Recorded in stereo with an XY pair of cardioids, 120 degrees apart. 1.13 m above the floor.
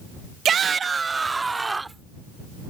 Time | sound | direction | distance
0.5 | a shout | 50° right | ?